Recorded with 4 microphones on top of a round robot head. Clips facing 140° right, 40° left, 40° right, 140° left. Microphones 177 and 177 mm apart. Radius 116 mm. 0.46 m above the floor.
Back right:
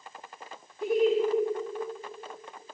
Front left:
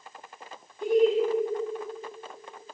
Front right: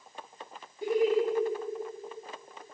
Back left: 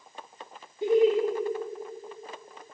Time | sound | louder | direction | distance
0.8 | laughter | front left 2 dB, back left 4 dB | 135° left | 0.8 m